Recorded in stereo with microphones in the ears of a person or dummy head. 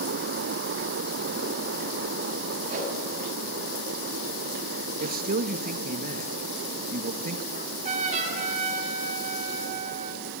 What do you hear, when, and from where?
2.7 s a whoosh: 45° right (ahead or behind), 7.5 m
5.0 s a man speaking: 40° right (ahead or behind), 1.9 m
7.5 s a trumpet: 40° right (ahead or behind), 7 m